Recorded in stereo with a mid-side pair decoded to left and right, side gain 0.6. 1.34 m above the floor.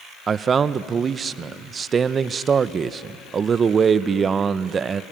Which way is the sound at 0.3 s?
35° right.